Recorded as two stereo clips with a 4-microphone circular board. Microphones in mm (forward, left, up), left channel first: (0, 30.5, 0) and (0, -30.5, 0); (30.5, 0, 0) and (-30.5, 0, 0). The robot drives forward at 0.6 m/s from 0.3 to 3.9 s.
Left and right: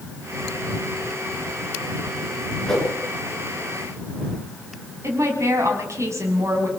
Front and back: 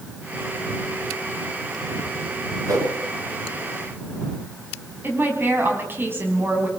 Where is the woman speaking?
125° right, 4.5 m.